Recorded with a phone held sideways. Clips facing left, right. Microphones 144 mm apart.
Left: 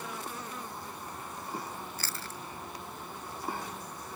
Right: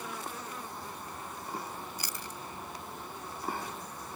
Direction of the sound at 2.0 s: 20° right (ahead or behind).